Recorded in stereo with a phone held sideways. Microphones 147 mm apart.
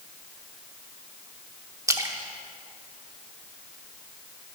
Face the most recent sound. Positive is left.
turn(degrees=-20)  # may be behind; listen again after turning